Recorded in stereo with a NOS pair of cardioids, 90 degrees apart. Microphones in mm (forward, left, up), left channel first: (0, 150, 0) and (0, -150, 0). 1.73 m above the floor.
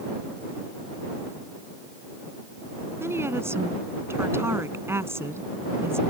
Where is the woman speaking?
10° right.